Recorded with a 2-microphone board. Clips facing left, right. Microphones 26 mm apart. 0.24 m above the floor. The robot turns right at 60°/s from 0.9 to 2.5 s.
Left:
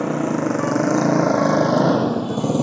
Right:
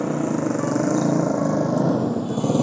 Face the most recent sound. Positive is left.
turn(degrees=5)  # may be behind; listen again after turning